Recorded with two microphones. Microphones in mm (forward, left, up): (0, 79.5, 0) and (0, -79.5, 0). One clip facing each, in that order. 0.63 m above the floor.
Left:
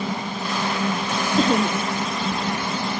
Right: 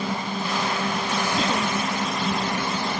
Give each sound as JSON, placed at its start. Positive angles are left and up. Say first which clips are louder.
{"t": 1.4, "sound": "laughter", "louder": "left 9 dB", "side_deg": 45}